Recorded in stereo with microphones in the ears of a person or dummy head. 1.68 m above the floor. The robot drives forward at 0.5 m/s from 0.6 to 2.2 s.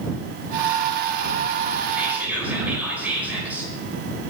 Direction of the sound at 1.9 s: 10° right (ahead or behind).